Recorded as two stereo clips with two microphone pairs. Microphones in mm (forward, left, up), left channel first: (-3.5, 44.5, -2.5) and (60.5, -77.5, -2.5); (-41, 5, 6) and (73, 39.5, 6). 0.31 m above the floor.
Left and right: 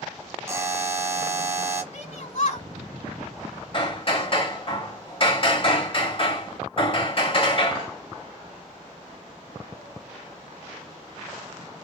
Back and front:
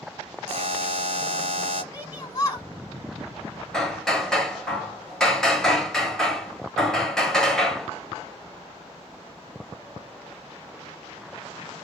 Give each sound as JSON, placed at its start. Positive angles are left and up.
{"t": 0.5, "sound": "a buzzer", "azimuth_deg": 5, "distance_m": 1.3}
{"t": 1.9, "sound": "a shout", "azimuth_deg": 140, "distance_m": 3.0}
{"t": 3.7, "sound": "hammering", "azimuth_deg": 115, "distance_m": 1.3}